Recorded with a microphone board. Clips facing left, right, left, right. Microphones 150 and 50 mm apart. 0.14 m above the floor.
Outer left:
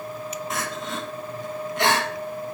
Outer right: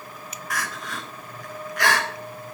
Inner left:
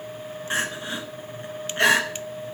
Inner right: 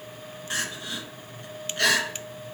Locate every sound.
0.5 s crying: 25° left (ahead or behind), 0.8 m